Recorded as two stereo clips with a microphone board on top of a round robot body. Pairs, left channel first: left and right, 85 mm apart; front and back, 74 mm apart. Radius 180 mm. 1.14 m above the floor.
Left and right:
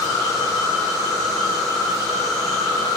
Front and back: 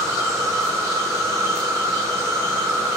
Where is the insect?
135° left, 3 m.